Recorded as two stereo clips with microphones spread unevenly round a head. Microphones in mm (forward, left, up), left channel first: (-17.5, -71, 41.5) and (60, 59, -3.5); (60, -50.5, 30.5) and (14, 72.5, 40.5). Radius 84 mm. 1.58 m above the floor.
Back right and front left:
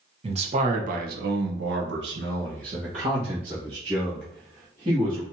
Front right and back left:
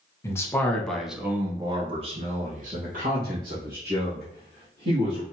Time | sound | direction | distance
0.2 | a man speaking | straight ahead | 1.0 m